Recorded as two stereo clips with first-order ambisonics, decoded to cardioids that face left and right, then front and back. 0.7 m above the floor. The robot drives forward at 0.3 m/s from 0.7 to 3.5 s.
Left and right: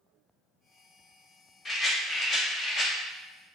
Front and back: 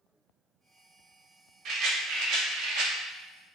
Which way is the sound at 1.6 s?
165° left.